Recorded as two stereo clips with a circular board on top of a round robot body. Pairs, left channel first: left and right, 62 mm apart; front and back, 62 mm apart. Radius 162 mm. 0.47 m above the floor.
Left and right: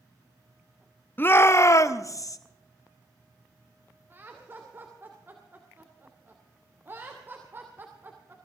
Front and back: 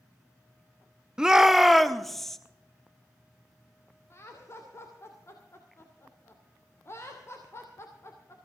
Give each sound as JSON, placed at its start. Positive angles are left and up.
{"t": 1.2, "sound": "a shout", "azimuth_deg": 110, "distance_m": 1.0}
{"t": 4.1, "sound": "laughter", "azimuth_deg": -40, "distance_m": 2.5}